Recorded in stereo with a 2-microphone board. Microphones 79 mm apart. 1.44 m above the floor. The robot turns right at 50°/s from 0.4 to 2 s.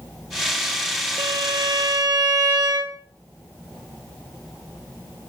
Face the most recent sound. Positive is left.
turn(degrees=-60)